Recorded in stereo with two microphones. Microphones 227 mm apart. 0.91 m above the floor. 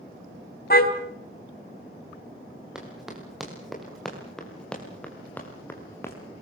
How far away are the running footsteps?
About 7.5 m.